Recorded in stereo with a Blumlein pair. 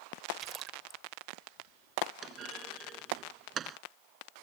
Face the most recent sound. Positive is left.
turn(degrees=-25)